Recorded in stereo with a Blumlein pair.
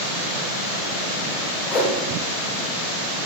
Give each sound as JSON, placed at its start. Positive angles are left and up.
{"t": 1.7, "sound": "a whoosh", "azimuth_deg": 20, "distance_m": 0.7}